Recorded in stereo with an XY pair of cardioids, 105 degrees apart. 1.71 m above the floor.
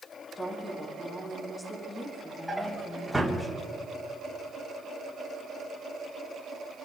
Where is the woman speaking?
15° left, 3 m.